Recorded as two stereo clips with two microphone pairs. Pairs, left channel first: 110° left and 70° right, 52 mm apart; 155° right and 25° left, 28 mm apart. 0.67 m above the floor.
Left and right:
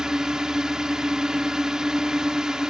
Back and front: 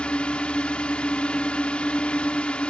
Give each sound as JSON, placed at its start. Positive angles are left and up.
{"t": 0.0, "sound": "a drone", "azimuth_deg": -145}